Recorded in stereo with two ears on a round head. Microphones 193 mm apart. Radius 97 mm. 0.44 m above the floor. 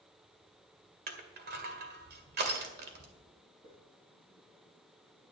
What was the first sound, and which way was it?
Crushing, 50° right (ahead or behind).